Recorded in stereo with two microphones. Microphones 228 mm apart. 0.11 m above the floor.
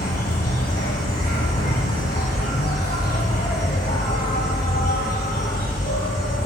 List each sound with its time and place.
0.0 s an insect: 40° left (ahead or behind), 0.9 m